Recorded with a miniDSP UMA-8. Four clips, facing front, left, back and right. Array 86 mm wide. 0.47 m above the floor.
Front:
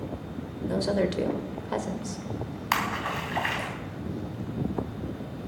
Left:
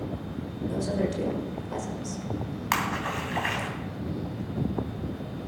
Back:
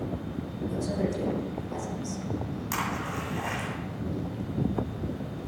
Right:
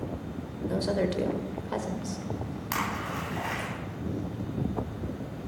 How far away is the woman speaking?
About 1.9 m.